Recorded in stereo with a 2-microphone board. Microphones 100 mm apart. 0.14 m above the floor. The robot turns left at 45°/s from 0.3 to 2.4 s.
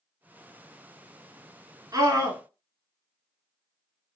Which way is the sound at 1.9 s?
40° right (ahead or behind).